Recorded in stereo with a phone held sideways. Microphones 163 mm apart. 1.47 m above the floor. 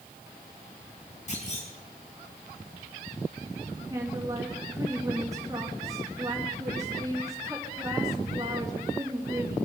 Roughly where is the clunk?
Left.